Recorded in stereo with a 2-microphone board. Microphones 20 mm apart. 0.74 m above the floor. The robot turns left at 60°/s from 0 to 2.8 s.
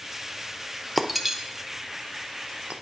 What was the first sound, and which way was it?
Breaking glass, 5° left (ahead or behind).